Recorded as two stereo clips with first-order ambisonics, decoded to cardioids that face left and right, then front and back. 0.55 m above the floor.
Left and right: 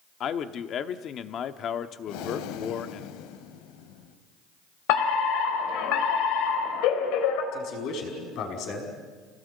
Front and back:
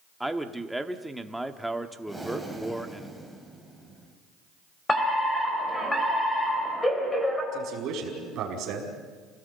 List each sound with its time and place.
0.2 s a man speaking: 95° left, 1.0 m
2.1 s breathing: 90° left, 2.5 m
4.9 s a fire alarm: 80° left, 4 m
7.5 s a man speaking: 130° left, 5.5 m